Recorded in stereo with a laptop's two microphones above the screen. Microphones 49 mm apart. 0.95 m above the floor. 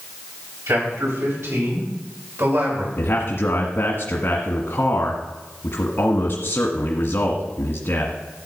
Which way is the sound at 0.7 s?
75° right (ahead or behind).